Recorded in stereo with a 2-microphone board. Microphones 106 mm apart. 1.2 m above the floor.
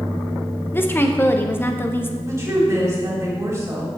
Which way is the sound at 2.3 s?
30° right (ahead or behind).